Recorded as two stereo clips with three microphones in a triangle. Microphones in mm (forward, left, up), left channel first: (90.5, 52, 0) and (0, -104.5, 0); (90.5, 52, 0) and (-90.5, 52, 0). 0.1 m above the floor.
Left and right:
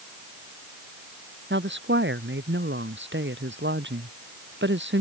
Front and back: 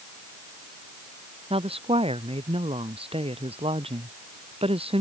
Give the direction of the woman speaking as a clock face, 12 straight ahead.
4 o'clock.